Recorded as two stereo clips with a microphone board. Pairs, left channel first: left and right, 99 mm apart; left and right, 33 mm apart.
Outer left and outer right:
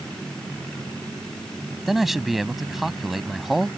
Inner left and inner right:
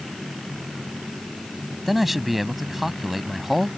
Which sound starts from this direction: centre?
A man speaking, at 1.9 s.